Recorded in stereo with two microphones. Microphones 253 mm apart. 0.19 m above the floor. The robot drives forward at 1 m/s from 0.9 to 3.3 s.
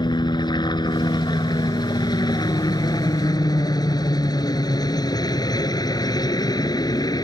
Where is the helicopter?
15° left (ahead or behind).